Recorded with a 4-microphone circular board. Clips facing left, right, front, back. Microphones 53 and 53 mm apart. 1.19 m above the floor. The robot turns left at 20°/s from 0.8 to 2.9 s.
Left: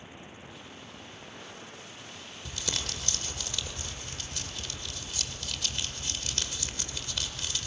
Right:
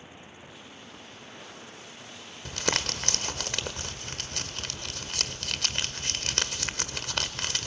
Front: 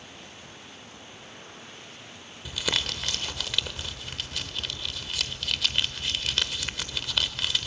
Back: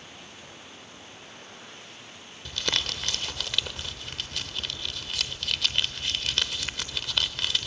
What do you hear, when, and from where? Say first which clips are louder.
2.5 s crumpling: right 7 dB, even; 80° right, 1.2 m; by 7.7 s 90° right, 1.2 m